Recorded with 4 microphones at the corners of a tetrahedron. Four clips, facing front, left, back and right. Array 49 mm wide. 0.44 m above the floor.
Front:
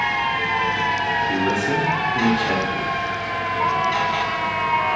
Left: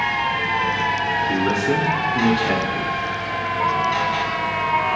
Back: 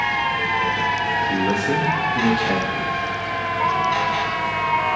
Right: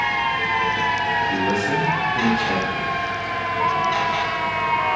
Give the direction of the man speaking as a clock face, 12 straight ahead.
9 o'clock.